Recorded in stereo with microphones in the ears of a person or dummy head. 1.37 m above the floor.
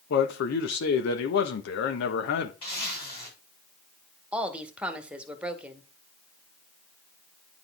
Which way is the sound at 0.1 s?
65° left (ahead or behind).